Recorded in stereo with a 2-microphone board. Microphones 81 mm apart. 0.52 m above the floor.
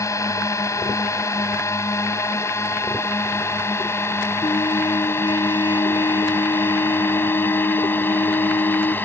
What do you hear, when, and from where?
0.0 s a drone: 40° left (ahead or behind); by 9.1 s 25° left (ahead or behind)
4.4 s a trumpet: 80° left